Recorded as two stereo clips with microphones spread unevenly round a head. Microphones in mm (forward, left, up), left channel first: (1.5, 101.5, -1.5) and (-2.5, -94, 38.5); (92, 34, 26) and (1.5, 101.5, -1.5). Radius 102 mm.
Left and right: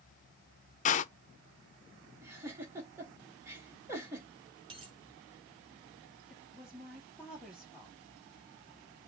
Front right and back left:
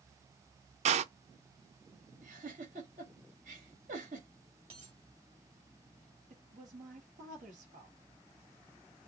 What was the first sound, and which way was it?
A door slam, 145° left.